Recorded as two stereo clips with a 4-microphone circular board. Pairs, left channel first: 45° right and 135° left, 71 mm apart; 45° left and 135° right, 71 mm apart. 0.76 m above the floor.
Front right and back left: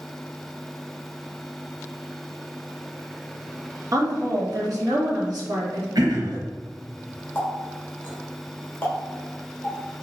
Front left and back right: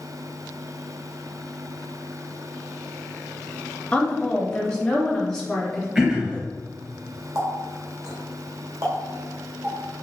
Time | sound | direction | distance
3.9 | a woman speaking | 115° left | 1.1 m
6.0 | throat clearing | 145° left | 1.9 m
7.3 | a running tap | 105° right | 2 m